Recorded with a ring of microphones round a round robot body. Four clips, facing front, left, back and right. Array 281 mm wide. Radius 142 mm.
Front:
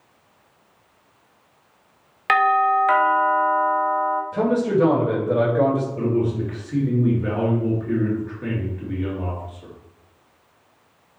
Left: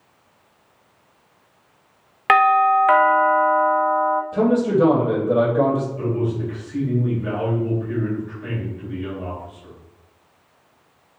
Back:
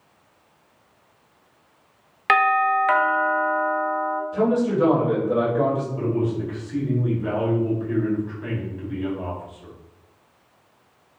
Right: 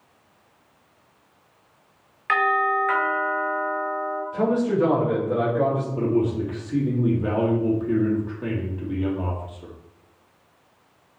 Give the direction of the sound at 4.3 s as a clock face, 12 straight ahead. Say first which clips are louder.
Left 2 dB, even; 10 o'clock.